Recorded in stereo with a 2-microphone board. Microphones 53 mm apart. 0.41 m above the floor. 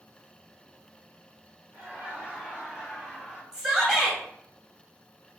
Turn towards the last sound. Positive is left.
turn(degrees=-5)  # may be behind; listen again after turning